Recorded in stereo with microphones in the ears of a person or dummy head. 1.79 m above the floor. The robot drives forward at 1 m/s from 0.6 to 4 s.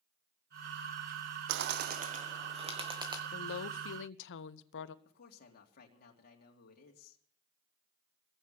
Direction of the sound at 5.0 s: 50° left (ahead or behind).